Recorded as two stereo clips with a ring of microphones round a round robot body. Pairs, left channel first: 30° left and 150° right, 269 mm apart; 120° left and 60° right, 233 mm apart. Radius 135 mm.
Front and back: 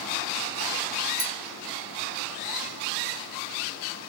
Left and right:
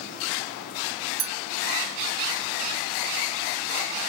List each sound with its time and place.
1.2 s a clink: 75° right, 1.0 m